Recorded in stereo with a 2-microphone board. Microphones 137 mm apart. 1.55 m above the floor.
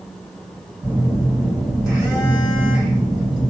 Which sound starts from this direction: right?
A phone buzzing, at 0.8 s.